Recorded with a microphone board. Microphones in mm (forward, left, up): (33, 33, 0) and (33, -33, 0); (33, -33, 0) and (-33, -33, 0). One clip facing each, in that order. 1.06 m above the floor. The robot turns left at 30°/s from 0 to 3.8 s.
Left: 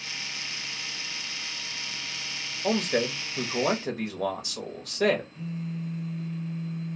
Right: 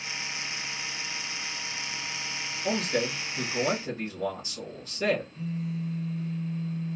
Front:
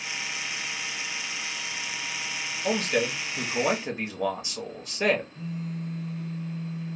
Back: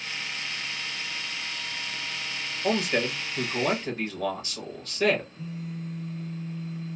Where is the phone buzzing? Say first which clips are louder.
Right 1 dB, front 2 dB; 15° left, 1.6 m.